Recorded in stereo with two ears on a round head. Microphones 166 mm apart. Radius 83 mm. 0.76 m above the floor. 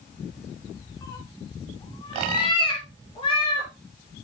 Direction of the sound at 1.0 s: 20° left (ahead or behind).